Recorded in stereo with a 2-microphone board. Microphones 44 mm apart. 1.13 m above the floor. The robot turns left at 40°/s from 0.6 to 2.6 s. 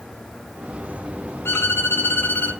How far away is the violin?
About 1.6 m.